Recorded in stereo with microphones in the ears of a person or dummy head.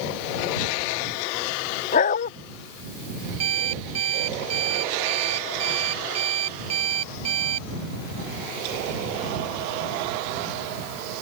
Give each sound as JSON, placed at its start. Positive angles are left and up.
{"t": 1.9, "sound": "a dog barking", "side_deg": 45}
{"t": 3.4, "sound": "an alarm clock", "side_deg": -35}